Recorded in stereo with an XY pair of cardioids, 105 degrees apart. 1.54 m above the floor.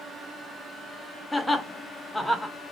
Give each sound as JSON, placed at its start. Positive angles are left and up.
{"t": 1.3, "sound": "laughter", "azimuth_deg": 10, "distance_m": 0.8}